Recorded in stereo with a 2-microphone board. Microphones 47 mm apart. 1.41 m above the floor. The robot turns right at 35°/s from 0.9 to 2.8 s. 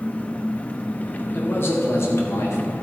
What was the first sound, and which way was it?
An engine running, 55° left.